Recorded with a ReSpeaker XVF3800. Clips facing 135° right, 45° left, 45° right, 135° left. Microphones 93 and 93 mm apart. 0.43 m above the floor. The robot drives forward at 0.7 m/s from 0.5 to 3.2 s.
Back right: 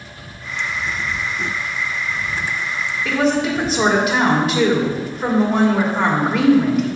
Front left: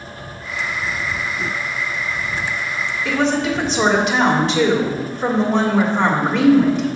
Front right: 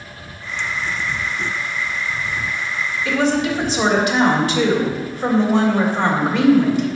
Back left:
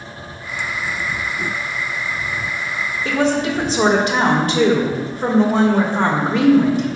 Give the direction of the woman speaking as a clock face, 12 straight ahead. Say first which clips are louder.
Back right 1 dB, even; 7 o'clock.